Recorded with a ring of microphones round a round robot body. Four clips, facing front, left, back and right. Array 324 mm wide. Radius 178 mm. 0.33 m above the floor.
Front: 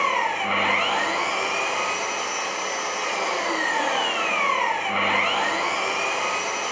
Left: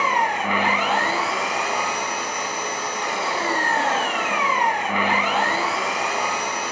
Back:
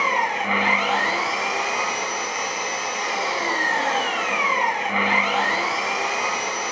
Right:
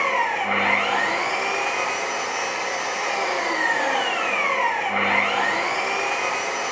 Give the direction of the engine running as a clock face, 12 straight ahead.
9 o'clock.